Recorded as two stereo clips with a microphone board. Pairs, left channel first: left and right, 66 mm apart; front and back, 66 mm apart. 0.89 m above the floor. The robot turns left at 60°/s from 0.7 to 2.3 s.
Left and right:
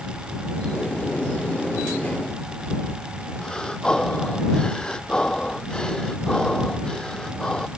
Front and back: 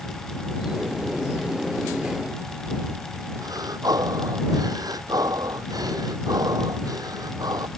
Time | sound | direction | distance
3.4 | breathing | 165° left | ?